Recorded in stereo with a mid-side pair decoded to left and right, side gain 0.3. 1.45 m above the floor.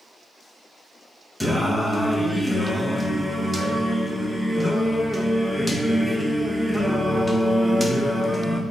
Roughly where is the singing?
Ahead.